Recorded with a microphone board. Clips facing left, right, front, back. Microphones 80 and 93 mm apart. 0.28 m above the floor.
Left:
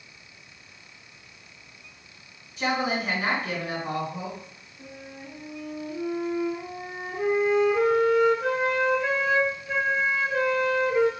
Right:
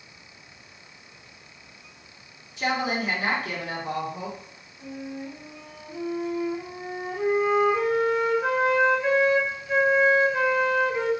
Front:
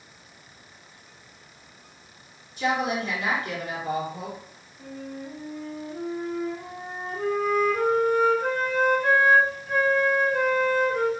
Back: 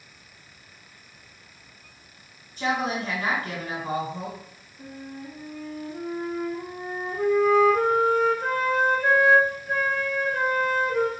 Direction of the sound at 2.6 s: 145° left.